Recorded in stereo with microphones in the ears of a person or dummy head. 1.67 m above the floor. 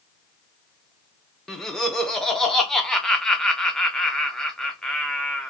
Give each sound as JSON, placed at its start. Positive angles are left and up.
{"t": 1.5, "sound": "laughter", "side_deg": 0, "distance_m": 0.5}